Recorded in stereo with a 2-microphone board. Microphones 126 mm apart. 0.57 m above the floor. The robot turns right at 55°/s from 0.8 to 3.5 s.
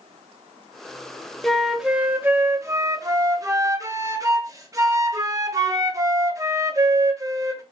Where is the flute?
5° left (ahead or behind), 0.5 m; by 7.6 s 25° right (ahead or behind), 0.5 m.